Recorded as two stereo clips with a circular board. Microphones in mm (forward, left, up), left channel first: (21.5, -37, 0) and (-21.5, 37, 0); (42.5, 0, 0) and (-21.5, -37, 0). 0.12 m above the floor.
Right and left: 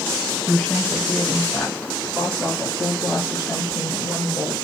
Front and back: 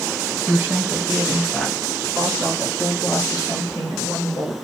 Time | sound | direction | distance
0.5 | a woman speaking | 140° right | 1.3 m